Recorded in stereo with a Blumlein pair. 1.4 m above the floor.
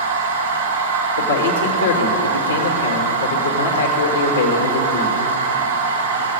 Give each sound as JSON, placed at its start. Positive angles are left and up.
{"t": 0.0, "sound": "a machine running", "azimuth_deg": -70, "distance_m": 2.0}
{"t": 1.2, "sound": "a man speaking", "azimuth_deg": 70, "distance_m": 2.0}